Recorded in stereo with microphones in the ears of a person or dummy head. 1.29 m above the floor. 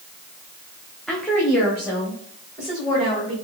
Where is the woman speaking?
Centre (ahead or behind), 0.6 m; by 3.3 s 5° left (ahead or behind), 2 m.